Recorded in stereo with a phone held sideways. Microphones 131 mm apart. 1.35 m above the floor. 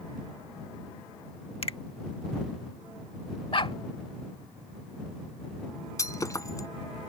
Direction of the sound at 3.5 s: 45° left (ahead or behind).